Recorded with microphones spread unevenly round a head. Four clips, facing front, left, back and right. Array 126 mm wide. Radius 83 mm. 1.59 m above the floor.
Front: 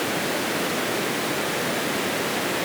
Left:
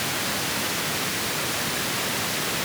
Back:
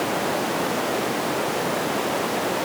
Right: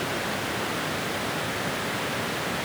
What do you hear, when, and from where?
Only background noise.